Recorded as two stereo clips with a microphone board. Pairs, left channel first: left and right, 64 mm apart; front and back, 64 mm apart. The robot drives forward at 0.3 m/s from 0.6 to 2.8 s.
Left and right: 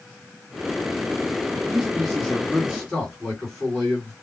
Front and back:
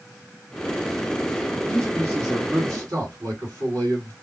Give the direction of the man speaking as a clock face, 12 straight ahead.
6 o'clock.